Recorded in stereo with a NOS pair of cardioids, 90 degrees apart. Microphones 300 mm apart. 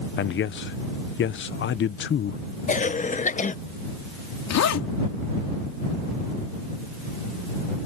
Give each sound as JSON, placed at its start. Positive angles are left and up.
{"t": 0.2, "sound": "a man speaking", "azimuth_deg": 40}
{"t": 2.7, "sound": "a cough", "azimuth_deg": 25}
{"t": 4.5, "sound": "a zipper", "azimuth_deg": 60}